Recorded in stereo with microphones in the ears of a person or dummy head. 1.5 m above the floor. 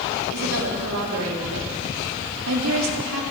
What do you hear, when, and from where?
0.3 s a woman speaking: 80° right, 3.5 m